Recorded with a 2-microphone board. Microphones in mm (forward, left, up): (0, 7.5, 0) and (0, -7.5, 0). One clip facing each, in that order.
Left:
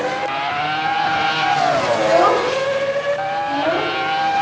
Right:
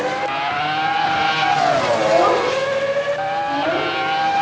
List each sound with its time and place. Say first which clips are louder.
1.9 s a child speaking: left 3 dB; 25° left (ahead or behind), 3.5 m